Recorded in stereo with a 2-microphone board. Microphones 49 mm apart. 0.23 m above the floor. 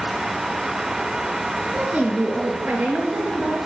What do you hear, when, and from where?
1.7 s a woman speaking: 30° right (ahead or behind), 4 m; by 3.6 s 45° right (ahead or behind), 5.5 m